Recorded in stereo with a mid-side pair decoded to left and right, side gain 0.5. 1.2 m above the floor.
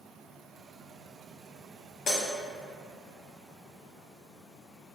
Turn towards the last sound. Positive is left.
turn(degrees=50)